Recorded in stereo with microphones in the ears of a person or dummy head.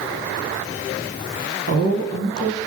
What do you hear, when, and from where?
1.7 s a woman speaking: 55° right (ahead or behind), 1.7 m